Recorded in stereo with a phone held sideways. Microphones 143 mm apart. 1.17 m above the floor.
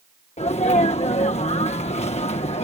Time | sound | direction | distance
0.4 | a sneeze | 50° left (ahead or behind) | ?